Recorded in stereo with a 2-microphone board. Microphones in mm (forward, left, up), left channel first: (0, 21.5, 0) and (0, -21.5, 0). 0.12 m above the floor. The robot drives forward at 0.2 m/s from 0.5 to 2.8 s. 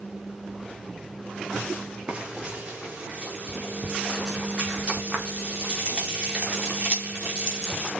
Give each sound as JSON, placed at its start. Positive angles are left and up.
{"t": 2.1, "sound": "frying", "side_deg": -15, "distance_m": 5.0}